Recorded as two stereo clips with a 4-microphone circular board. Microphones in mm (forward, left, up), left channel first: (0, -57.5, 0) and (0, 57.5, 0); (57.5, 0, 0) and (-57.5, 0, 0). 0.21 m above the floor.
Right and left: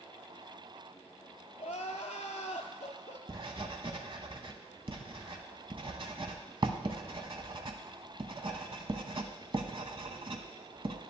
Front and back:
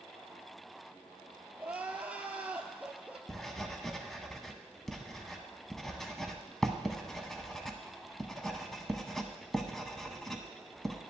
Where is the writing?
85° left, 0.8 m.